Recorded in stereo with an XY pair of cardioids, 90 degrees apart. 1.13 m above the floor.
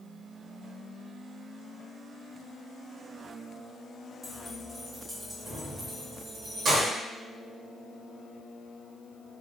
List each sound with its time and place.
4.2 s keys jangling: straight ahead, 1.6 m; by 6.9 s 70° right, 1.3 m